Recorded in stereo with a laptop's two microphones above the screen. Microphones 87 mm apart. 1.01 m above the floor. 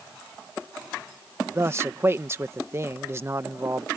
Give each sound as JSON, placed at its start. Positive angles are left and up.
{"t": 1.6, "sound": "a man speaking", "side_deg": -30}